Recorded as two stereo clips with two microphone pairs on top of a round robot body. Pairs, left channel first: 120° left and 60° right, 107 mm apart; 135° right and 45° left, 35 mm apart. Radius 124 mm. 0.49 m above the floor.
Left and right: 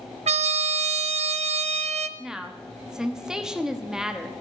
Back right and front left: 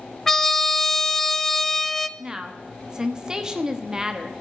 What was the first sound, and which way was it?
A trumpet, 55° right.